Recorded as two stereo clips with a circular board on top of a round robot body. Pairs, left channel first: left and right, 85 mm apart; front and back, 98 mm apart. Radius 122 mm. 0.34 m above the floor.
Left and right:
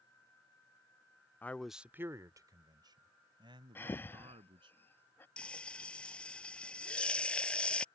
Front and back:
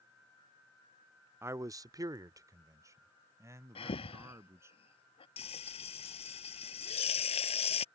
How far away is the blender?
I don't hear a blender.